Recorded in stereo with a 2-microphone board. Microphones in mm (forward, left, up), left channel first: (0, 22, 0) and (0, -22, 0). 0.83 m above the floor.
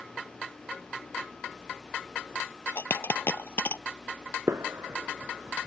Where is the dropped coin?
60° left (ahead or behind).